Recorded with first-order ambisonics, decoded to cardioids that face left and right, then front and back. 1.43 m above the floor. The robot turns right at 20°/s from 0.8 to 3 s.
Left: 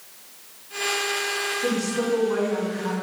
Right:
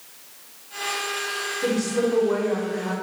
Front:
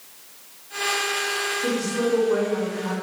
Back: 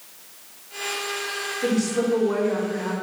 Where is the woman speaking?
140° right, 1.5 m; by 2.9 s 115° right, 1.5 m.